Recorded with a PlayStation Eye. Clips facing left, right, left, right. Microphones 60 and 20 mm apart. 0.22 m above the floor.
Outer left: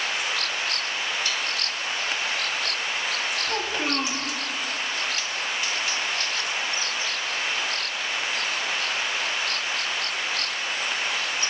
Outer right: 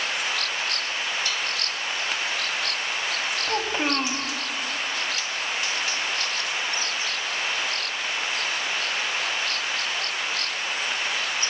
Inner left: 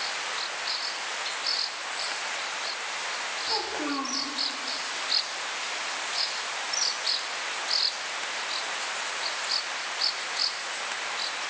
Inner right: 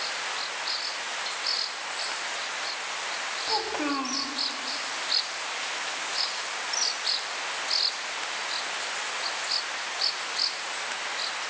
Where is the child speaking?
20° right (ahead or behind), 0.9 m.